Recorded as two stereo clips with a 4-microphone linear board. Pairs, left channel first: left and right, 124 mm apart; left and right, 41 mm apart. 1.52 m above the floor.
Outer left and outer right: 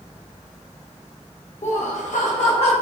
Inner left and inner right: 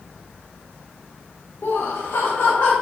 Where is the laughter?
65° left (ahead or behind), 0.8 m; by 2.7 s 50° left (ahead or behind), 0.8 m.